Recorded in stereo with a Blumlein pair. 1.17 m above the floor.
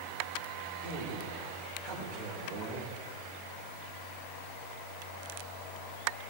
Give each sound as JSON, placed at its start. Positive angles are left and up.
{"t": 0.8, "sound": "a man speaking", "azimuth_deg": -55, "distance_m": 4.0}